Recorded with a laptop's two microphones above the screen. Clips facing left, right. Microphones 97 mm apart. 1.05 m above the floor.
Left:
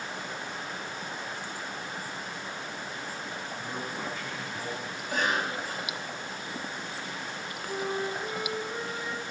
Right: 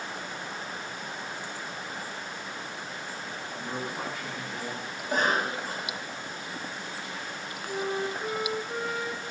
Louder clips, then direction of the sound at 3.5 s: Right 4 dB; 85° right.